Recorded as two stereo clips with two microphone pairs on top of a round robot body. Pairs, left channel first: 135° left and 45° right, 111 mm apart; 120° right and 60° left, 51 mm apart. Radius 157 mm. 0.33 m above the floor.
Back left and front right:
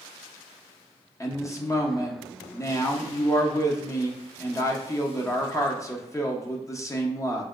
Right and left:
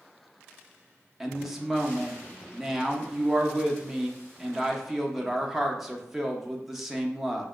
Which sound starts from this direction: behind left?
A woman speaking, at 1.2 s.